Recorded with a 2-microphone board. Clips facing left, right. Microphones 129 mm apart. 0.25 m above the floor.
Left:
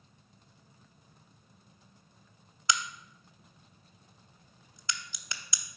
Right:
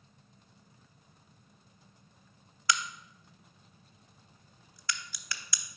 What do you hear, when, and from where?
2.7 s a crack: 25° left (ahead or behind), 0.5 m